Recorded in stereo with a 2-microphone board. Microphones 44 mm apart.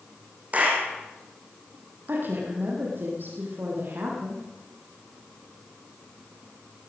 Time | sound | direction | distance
0.5 | a clap | 35° right (ahead or behind) | 3.5 m
2.1 | a woman speaking | 50° right (ahead or behind) | 3.5 m